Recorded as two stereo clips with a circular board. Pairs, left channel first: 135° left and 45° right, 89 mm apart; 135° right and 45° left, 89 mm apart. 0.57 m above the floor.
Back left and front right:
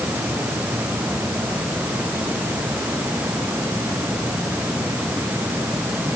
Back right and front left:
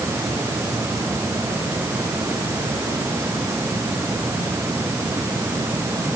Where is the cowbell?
I don't hear a cowbell.